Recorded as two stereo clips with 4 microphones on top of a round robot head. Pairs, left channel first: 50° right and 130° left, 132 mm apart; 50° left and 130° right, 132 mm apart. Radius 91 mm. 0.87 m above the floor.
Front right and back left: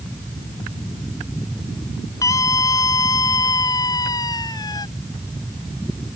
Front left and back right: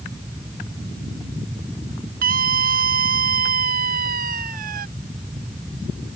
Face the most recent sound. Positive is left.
turn(degrees=-115)